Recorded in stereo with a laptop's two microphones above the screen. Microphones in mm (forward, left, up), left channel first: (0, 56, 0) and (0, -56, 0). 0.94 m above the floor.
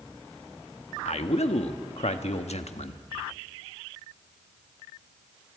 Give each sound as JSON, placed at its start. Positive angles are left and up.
{"t": 1.1, "sound": "a man speaking", "side_deg": 70, "distance_m": 1.1}